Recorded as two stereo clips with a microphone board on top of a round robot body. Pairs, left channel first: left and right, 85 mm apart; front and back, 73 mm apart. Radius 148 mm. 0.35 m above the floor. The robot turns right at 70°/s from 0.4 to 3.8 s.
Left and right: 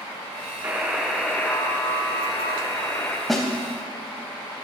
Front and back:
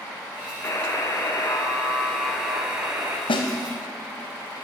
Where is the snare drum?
Straight ahead, 0.5 m; by 3.5 s 10° left, 0.5 m.